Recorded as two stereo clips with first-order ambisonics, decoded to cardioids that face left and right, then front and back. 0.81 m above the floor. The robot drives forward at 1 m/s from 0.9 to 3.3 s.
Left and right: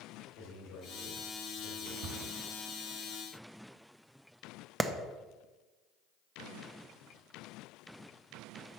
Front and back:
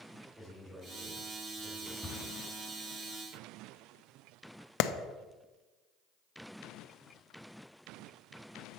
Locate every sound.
0.3 s a man speaking: 100° left, 3.5 m; by 1.9 s 115° left, 3.5 m
2.0 s a cupboard door: 90° right, 1.4 m; by 2.3 s 100° right, 1.4 m
4.8 s a clap: 5° right, 0.5 m